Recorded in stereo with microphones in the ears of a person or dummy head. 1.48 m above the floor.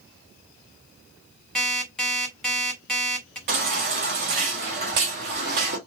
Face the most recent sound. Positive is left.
turn(degrees=-35)  # may be behind; listen again after turning